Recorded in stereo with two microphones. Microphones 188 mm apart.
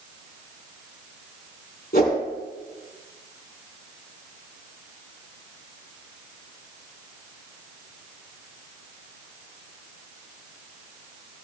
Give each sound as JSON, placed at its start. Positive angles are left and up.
{"t": 1.9, "sound": "a whoosh", "side_deg": 50, "distance_m": 3.5}